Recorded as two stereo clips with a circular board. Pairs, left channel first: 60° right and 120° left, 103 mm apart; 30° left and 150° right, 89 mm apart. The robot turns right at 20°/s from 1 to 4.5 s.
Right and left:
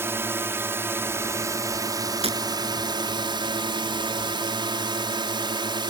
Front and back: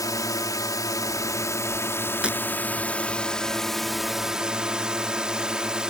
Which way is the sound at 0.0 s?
60° left.